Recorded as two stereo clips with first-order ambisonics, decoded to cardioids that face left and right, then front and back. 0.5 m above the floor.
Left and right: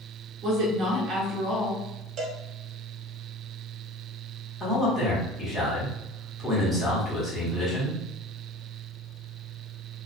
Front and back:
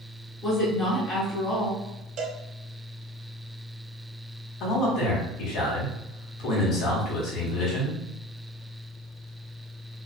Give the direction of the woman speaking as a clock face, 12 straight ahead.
2 o'clock.